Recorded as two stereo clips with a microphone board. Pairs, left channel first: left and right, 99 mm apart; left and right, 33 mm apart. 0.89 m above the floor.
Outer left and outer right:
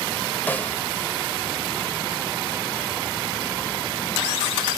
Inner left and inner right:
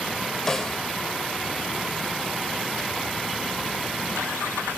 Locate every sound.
0.5 s a snare drum: 15° left (ahead or behind), 2.5 m